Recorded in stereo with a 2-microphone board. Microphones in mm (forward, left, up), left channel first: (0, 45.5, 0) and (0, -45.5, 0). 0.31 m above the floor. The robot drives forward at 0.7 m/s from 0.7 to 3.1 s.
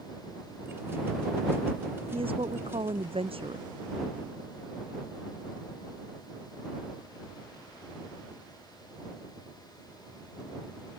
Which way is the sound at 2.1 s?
85° right.